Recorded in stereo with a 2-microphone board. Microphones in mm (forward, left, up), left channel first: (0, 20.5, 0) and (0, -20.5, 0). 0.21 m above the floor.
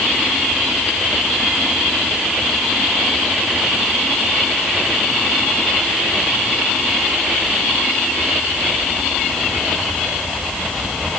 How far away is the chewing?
No chewing in this recording.